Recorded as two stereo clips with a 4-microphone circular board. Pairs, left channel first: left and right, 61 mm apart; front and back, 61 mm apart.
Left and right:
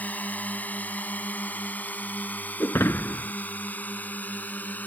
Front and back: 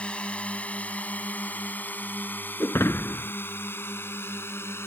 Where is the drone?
55° left; by 4.9 s 35° left.